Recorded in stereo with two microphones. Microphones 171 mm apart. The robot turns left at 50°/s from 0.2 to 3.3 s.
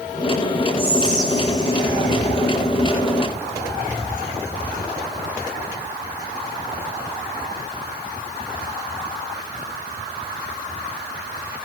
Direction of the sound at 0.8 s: 40° right.